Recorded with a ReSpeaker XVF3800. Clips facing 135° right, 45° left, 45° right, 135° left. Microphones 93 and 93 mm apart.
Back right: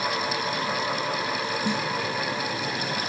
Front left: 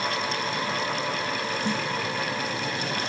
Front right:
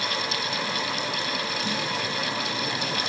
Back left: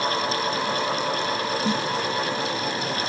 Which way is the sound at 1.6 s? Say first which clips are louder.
Back right 1 dB, back left 6 dB; 160° left.